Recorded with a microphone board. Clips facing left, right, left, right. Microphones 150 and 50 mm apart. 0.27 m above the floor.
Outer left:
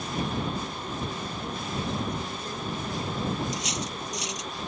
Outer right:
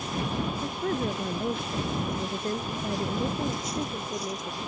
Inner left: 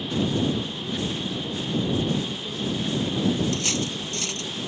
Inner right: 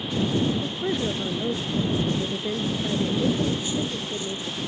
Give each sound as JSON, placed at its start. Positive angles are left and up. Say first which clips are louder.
{"t": 0.6, "sound": "a woman speaking", "louder": "outer right 6 dB, inner right 3 dB", "side_deg": -70}
{"t": 3.5, "sound": "cutlery clinking", "louder": "outer right 2 dB, even", "side_deg": 70}